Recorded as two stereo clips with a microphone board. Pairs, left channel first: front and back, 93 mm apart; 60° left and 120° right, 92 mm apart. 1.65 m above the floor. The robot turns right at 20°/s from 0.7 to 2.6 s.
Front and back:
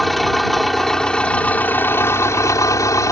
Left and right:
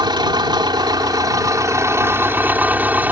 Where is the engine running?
90° right; by 3.1 s 50° right.